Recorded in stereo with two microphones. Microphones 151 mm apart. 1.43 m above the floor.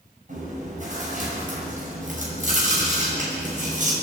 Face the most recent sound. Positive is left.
turn(degrees=-55)  # may be behind; listen again after turning